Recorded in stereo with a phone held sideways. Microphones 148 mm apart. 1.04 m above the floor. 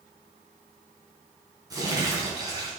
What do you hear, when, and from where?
1.7 s crumpling: 25° right (ahead or behind), 4 m